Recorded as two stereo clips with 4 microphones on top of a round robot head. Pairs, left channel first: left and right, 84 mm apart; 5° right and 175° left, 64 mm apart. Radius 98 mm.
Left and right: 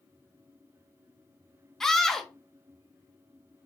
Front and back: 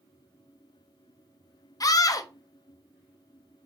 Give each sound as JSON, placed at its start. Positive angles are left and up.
{"t": 1.8, "sound": "a scream", "azimuth_deg": 5, "distance_m": 0.6}